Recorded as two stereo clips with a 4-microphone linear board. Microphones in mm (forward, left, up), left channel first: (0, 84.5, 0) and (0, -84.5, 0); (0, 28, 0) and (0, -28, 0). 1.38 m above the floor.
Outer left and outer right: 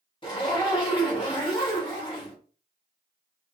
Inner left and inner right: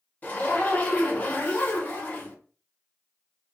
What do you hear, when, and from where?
0.2 s a zipper: 30° left (ahead or behind), 1.0 m